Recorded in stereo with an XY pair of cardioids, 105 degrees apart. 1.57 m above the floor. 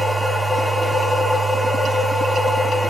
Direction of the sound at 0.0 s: Straight ahead.